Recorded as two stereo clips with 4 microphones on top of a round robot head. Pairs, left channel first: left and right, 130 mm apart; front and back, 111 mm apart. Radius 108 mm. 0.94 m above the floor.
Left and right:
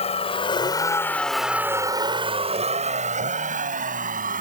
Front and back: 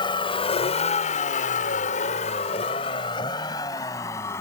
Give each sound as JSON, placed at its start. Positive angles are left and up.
{"t": 0.0, "sound": "a vehicle", "azimuth_deg": 50}